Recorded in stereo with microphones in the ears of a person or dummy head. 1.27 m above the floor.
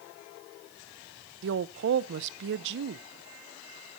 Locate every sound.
1.4 s a woman speaking: 55° right (ahead or behind), 0.5 m